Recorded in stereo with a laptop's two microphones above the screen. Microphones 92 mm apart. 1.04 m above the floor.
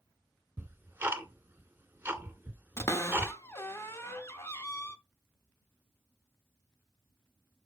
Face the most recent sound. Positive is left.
turn(degrees=30)  # may be behind; listen again after turning